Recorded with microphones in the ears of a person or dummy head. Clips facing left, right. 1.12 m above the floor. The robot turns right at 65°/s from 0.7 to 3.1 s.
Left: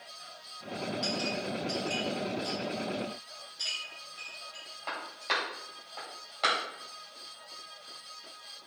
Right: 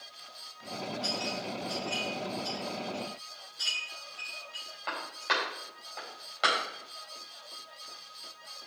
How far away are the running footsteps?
No running footsteps in this recording.